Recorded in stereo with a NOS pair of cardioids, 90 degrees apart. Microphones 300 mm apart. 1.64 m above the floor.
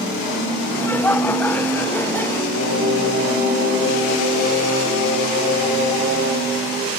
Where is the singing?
55° left, 9 m.